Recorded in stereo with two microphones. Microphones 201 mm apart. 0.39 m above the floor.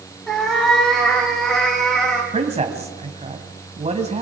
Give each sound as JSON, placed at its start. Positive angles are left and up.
{"t": 0.3, "sound": "a cat meowing", "side_deg": 0, "distance_m": 8.5}
{"t": 2.3, "sound": "a man speaking", "side_deg": -30, "distance_m": 2.5}